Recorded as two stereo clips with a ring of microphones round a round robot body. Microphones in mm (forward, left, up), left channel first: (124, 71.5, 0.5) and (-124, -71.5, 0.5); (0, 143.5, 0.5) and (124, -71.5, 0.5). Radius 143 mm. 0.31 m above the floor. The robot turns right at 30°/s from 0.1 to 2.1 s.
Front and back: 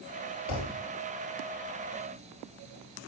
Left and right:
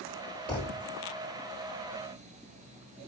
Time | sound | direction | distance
0.5 | a thud | 35° left | 3 m